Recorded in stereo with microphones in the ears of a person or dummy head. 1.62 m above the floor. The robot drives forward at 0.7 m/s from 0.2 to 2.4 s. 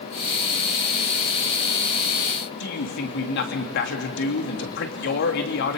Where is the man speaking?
60° left (ahead or behind), 3 m.